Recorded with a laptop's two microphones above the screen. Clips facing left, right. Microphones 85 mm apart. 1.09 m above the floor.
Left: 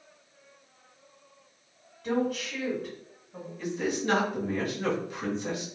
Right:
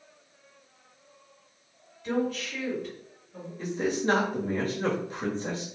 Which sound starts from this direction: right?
A man speaking, at 3.6 s.